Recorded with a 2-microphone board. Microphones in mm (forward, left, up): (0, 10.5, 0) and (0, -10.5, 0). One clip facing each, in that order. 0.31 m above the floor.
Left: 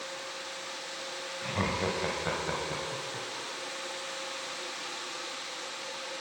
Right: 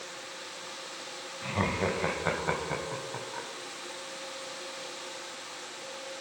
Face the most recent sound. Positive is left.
turn(degrees=-30)  # may be behind; listen again after turning